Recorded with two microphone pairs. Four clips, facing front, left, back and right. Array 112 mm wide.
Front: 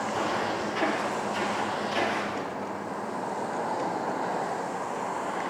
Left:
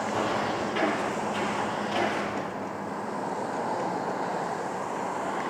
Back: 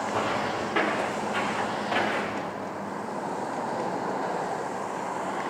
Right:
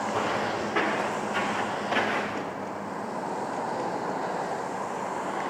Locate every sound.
0.1 s footsteps: 145° right, 8.5 m; by 2.5 s 125° right, 8.5 m